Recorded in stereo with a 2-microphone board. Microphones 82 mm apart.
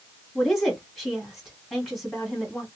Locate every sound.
0.3 s a woman speaking: centre (ahead or behind), 1.5 m